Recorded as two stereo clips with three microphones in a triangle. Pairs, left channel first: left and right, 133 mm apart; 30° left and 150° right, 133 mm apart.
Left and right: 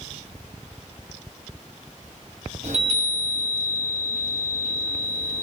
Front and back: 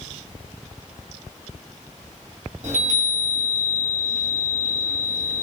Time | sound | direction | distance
2.6 | a chime | 125° right | 0.7 m